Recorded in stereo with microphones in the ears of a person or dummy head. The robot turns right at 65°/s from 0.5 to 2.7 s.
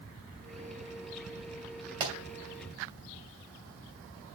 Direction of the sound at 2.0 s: 30° right (ahead or behind).